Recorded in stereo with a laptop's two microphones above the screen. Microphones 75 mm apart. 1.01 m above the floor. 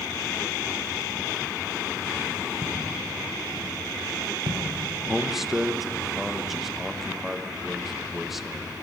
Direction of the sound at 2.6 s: 55° right (ahead or behind).